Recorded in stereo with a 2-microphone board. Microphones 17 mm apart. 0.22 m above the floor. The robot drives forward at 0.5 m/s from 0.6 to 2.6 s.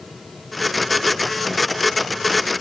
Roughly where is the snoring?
I don't hear snoring.